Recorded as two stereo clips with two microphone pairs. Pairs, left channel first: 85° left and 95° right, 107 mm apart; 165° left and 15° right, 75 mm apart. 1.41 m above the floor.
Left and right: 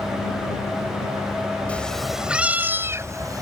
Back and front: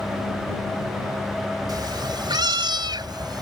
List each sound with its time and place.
1.7 s a cat meowing: 10° left; by 3.4 s 40° right